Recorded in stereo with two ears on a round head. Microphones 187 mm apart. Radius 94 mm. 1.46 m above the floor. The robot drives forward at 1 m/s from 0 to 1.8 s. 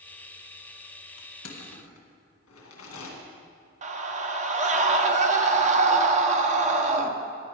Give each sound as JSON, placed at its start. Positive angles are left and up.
{"t": 1.2, "sound": "crushing", "side_deg": 80, "distance_m": 2.0}
{"t": 3.8, "sound": "a scream", "side_deg": -35, "distance_m": 1.2}